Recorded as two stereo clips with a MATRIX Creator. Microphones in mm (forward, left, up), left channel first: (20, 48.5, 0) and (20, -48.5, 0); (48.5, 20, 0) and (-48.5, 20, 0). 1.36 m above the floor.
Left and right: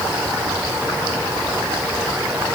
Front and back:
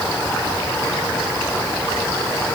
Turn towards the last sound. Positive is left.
No sound to turn to.